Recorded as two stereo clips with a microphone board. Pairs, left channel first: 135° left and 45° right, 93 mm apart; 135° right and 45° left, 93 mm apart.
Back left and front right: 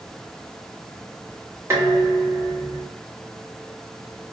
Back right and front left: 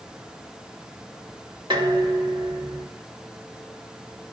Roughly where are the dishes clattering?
Ahead.